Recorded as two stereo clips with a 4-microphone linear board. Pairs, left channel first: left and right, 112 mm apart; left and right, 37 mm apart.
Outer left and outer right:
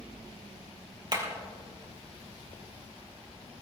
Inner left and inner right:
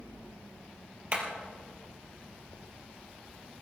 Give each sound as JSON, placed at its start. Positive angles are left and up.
{"t": 1.1, "sound": "hammering", "side_deg": -40, "distance_m": 3.0}